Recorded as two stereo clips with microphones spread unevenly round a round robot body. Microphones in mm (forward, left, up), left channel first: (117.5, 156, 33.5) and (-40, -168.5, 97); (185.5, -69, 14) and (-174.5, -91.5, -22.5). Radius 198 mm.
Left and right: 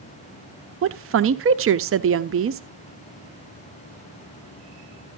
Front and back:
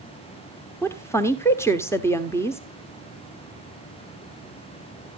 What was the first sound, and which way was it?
A woman speaking, 85° right.